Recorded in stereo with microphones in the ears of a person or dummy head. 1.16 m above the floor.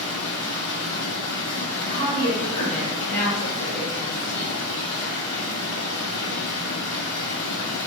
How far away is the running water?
About 1.2 m.